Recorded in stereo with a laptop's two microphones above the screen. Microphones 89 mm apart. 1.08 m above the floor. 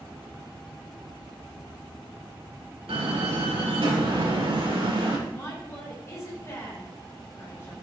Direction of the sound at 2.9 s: 90° right.